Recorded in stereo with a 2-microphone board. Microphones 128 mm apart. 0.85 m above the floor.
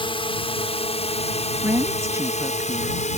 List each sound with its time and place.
0.0 s a drone: 45° left (ahead or behind); by 3.2 s 65° left (ahead or behind)
1.6 s a woman speaking: 20° right (ahead or behind)